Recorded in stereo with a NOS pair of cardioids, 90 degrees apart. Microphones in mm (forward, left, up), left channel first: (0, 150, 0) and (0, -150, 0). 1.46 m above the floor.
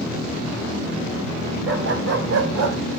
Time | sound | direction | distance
1.7 | a dog barking | 50° right | 3.5 m